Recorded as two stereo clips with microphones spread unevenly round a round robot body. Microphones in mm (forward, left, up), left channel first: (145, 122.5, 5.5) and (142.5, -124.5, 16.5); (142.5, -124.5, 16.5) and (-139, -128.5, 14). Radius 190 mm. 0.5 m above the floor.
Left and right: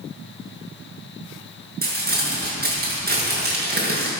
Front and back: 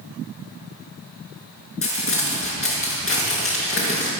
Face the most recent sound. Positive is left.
turn(degrees=-40)